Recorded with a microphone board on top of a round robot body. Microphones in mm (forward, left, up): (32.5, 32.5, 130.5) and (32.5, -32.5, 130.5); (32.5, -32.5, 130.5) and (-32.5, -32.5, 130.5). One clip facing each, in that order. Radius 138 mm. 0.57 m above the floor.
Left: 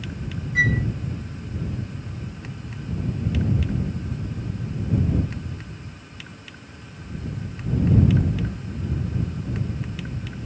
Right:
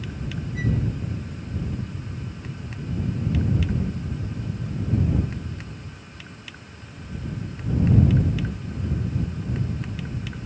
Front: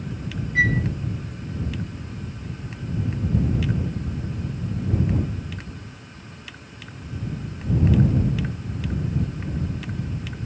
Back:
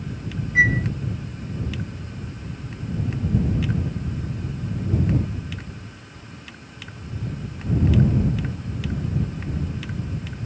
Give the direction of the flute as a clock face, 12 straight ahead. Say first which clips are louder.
Left 6 dB, back 3 dB; 8 o'clock.